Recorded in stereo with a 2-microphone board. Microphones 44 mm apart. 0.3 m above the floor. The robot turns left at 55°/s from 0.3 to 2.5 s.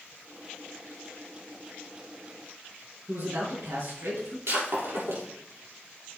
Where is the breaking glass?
70° right (ahead or behind), 5.5 m.